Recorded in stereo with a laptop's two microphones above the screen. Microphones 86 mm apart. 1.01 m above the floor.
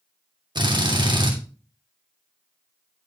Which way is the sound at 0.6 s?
60° right (ahead or behind).